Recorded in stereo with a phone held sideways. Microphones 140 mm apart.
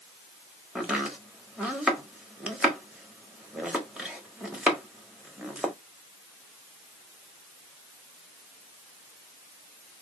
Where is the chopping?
5° right (ahead or behind), 1.2 m.